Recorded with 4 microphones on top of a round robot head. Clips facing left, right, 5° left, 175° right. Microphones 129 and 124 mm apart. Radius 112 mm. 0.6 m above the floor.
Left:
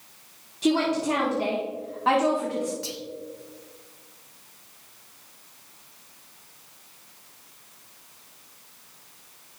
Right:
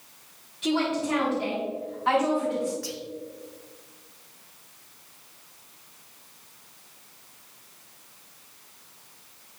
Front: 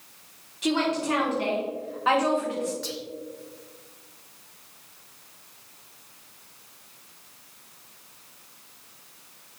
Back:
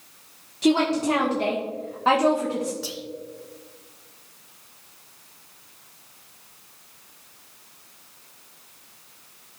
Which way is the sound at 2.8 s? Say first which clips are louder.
Even, even; 110° left.